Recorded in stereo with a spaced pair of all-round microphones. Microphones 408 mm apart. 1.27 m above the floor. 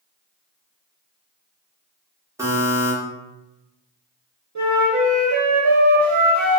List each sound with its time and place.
2.4 s a buzzer: 5° right (ahead or behind), 0.8 m
4.5 s a flute: 45° right (ahead or behind), 0.7 m